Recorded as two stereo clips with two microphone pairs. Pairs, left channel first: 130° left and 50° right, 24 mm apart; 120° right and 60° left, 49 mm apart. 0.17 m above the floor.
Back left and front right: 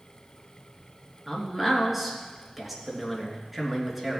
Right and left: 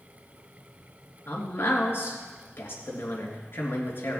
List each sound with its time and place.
1.3 s a man speaking: 130° right, 3 m